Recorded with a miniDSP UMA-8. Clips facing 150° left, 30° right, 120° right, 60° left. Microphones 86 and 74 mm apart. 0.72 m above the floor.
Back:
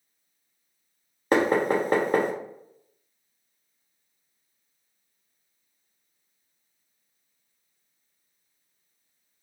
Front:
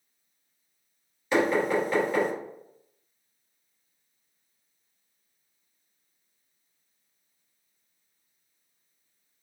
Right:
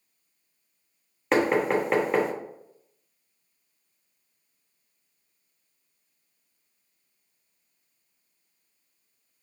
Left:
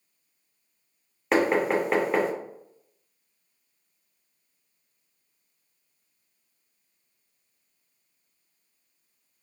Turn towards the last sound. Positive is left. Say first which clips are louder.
# back 2 dB, even
turn(degrees=150)